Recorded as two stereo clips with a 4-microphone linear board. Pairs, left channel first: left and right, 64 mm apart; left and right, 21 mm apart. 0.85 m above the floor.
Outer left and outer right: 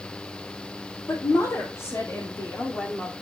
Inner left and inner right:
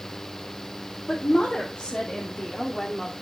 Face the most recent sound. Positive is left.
turn(degrees=15)  # may be behind; listen again after turning